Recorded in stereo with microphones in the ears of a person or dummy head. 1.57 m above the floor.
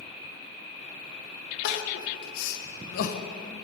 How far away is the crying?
About 1.1 m.